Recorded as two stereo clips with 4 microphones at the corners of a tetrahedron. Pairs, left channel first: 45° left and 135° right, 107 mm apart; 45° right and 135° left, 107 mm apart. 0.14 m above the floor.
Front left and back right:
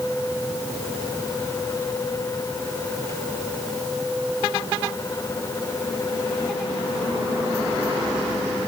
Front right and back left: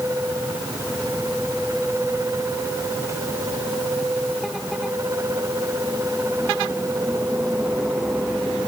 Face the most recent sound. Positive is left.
No sound to turn to.